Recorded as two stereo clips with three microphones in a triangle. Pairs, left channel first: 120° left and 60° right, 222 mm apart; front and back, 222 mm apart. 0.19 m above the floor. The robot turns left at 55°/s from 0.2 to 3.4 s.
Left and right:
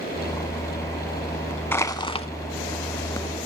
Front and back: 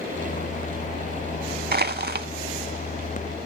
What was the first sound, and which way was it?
Crushing, 165° right.